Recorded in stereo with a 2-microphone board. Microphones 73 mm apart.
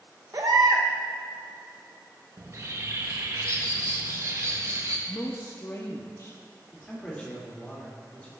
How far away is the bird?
About 0.6 m.